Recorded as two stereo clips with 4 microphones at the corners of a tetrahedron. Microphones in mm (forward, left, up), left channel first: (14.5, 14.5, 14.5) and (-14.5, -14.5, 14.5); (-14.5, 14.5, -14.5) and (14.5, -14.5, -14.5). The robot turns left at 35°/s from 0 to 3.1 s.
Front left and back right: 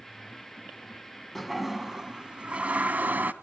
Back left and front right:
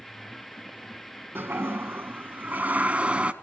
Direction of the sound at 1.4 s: 40° right.